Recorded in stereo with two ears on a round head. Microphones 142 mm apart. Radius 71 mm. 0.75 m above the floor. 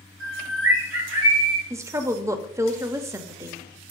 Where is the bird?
75° right (ahead or behind), 4.5 m.